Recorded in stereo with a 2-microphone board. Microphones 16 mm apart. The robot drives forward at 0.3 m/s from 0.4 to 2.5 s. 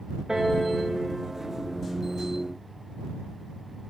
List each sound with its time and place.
0.3 s a piano: 45° right (ahead or behind), 0.8 m; by 1.6 s 30° right (ahead or behind), 1.1 m